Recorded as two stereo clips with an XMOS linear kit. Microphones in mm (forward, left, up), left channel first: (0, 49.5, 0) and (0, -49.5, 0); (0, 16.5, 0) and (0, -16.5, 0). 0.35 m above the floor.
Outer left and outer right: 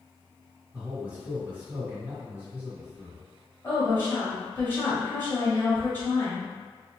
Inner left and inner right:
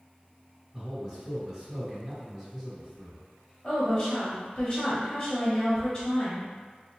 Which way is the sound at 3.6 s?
25° left (ahead or behind).